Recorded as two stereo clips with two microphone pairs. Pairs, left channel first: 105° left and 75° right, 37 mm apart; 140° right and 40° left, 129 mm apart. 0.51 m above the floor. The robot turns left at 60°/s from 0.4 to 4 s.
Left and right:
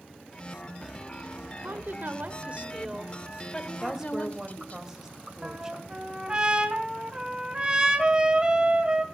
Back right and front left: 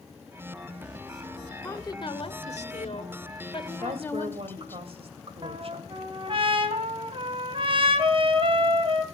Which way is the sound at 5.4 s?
5° right.